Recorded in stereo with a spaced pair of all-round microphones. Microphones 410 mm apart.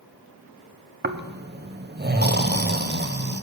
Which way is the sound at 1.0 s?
25° right (ahead or behind).